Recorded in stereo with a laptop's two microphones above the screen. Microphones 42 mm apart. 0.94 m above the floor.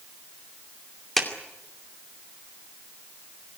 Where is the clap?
5° left (ahead or behind), 2.5 m.